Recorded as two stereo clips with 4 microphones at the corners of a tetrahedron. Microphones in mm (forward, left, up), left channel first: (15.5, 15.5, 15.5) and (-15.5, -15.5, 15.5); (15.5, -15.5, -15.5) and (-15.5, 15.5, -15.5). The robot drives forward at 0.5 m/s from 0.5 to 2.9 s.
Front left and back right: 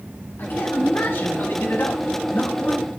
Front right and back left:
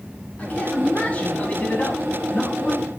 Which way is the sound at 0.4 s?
10° left.